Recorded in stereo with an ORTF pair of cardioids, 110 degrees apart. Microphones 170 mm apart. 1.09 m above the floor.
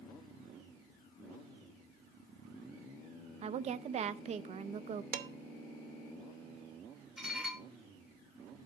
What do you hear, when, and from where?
3.4 s a woman speaking: 40° right, 0.5 m
5.1 s dishes clattering: 60° right, 0.9 m
7.2 s dishes clattering: straight ahead, 2 m